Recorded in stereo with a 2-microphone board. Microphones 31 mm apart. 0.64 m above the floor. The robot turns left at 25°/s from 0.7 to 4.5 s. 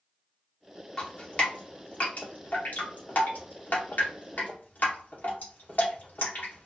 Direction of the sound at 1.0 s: 25° left (ahead or behind).